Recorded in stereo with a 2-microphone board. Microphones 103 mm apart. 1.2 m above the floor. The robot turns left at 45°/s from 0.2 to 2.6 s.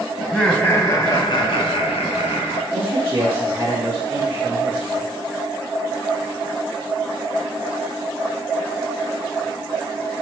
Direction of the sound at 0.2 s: 175° left.